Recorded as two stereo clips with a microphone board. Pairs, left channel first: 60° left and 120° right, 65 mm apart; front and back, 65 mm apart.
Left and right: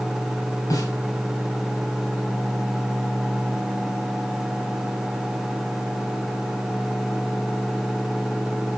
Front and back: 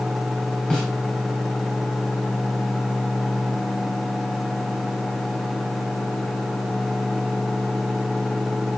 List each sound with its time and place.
0.7 s a snare drum: 75° left, 5 m